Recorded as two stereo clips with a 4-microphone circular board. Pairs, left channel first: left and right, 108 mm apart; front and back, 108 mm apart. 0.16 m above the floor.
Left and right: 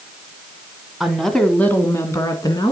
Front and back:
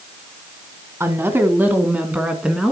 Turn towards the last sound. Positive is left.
turn(degrees=100)